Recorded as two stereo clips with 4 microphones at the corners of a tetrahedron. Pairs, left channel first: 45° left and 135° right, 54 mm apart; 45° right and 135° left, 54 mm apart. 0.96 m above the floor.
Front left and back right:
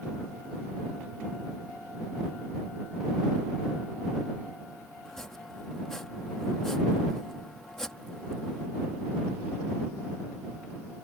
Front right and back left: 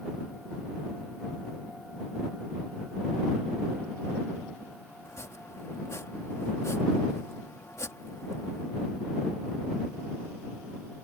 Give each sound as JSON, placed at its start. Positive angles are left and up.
{"t": 5.0, "sound": "chopping", "azimuth_deg": -35}